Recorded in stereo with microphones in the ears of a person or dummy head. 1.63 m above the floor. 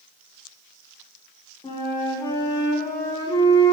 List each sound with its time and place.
1.6 s a flute: 20° left (ahead or behind), 0.7 m